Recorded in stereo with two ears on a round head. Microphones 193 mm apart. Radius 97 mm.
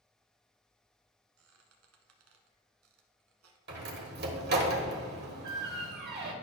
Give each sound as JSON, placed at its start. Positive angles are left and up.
{"t": 1.4, "sound": "a squeak", "side_deg": -65, "distance_m": 1.1}
{"t": 3.7, "sound": "a door slam", "side_deg": -50, "distance_m": 1.3}